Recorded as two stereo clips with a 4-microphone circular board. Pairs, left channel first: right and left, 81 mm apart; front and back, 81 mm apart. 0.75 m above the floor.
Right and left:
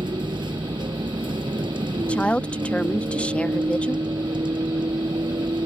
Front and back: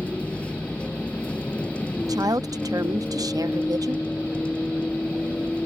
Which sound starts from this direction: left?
A vehicle, at 0.0 s.